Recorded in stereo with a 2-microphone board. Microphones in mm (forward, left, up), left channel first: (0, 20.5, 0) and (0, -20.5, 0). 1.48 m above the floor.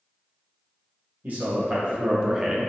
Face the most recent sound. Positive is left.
turn(degrees=5)  # may be behind; listen again after turning